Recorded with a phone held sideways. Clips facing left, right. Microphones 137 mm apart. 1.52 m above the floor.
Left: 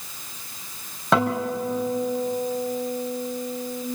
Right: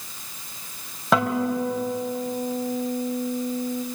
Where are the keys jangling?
No keys jangling in this recording.